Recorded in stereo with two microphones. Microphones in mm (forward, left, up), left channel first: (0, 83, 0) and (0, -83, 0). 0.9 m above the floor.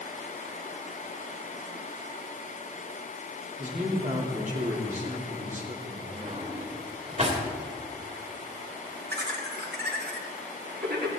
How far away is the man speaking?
About 2.5 m.